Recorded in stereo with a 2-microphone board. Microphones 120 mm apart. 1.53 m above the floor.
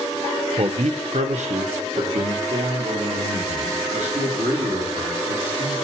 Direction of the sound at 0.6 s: 55° right (ahead or behind).